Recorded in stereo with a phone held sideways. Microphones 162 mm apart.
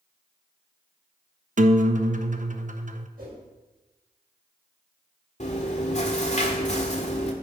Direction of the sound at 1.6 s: 50° right (ahead or behind).